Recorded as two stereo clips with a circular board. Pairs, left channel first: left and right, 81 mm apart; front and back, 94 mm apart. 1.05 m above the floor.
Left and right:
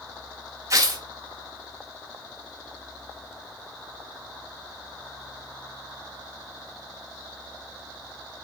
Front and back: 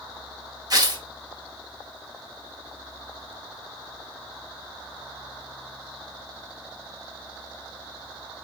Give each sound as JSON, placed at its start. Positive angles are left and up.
{"t": 0.7, "sound": "tearing paper", "azimuth_deg": -135, "distance_m": 2.0}